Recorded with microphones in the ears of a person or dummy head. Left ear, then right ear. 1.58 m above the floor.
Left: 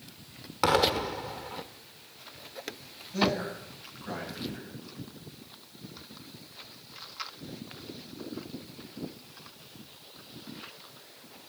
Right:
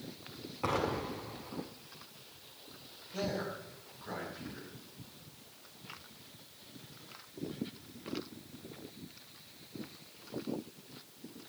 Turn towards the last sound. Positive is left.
turn(degrees=5)  # may be behind; listen again after turning